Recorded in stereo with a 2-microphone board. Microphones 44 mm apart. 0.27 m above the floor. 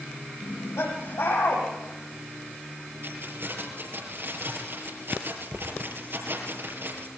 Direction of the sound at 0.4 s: 85° left.